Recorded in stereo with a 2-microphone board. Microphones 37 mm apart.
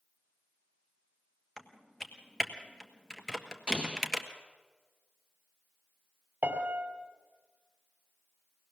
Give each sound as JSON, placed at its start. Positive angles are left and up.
{"t": 1.6, "sound": "typing on a keyboard", "side_deg": 10, "distance_m": 1.6}
{"t": 3.7, "sound": "an explosion", "side_deg": -25, "distance_m": 0.5}
{"t": 6.4, "sound": "a piano", "side_deg": -50, "distance_m": 2.0}